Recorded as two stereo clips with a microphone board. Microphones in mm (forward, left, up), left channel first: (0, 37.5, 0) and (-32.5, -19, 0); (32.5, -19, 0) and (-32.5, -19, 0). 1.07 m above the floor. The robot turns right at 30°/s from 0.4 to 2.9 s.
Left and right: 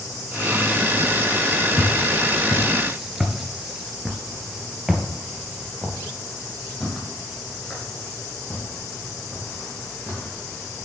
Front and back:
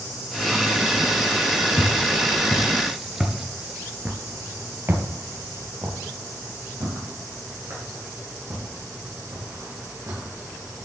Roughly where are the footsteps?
Right.